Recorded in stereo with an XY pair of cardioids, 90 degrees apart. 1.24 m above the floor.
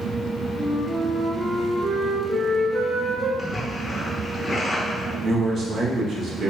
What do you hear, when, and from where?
0.6 s a flute: 30° right, 0.7 m
3.4 s a splash: 20° left, 1.2 m
5.2 s a man speaking: 65° right, 1.0 m